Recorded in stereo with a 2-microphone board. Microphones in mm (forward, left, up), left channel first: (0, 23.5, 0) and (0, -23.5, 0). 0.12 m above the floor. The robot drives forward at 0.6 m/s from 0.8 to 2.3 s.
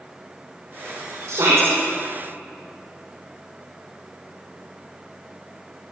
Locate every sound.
1.3 s a shout: 80° right, 7 m